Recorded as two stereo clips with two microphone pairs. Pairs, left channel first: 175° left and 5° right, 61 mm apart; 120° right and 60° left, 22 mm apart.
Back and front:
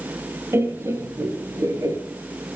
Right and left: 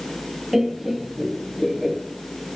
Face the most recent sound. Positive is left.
turn(degrees=-35)